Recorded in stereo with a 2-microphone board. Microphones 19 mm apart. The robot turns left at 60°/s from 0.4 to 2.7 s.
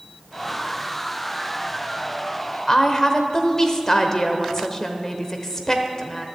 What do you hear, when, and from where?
2.7 s a woman speaking: 25° left (ahead or behind), 0.9 m